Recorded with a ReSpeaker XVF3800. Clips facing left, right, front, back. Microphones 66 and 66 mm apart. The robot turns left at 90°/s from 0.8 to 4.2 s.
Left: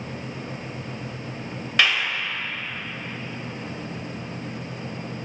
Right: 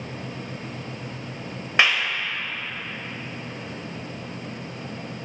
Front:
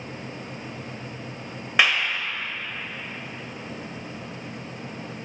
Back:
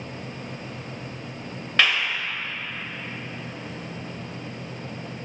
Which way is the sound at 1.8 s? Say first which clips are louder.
Right 1 dB, front 1 dB; 55° right.